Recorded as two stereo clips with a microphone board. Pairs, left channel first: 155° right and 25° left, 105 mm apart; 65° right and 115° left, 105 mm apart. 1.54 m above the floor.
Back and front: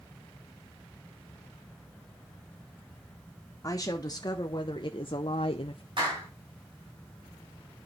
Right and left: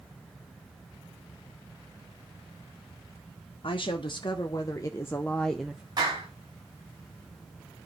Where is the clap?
60° left, 7 m.